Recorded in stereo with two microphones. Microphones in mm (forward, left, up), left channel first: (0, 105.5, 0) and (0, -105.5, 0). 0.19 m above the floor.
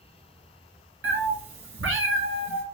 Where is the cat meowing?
70° right (ahead or behind), 1.1 m.